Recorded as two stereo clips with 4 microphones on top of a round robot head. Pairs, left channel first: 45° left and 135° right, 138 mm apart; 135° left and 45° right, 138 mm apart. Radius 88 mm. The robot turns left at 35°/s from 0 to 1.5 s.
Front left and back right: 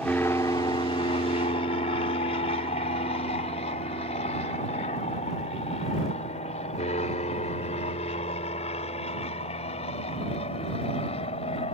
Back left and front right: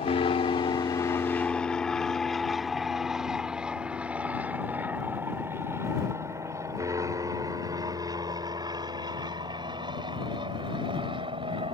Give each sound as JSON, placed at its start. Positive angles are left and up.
{"t": 0.0, "sound": "an aircraft", "azimuth_deg": 120}